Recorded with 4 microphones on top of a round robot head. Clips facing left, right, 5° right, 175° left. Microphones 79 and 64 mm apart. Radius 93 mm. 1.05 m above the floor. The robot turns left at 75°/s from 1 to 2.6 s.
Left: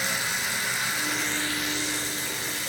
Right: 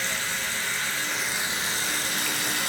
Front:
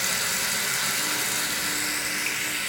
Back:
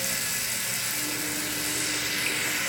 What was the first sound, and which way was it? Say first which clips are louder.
Running water: left 1 dB, front 5 dB; 15° left.